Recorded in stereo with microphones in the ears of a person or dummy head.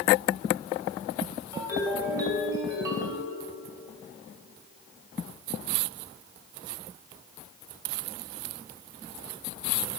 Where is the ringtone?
20° right (ahead or behind), 2.5 m.